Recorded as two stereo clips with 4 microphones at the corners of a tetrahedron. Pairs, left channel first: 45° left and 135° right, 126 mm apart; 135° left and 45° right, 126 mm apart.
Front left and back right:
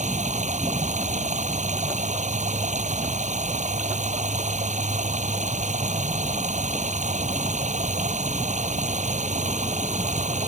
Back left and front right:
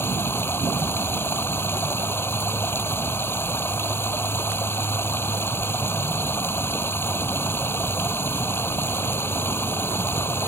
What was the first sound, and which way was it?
Running water, 155° right.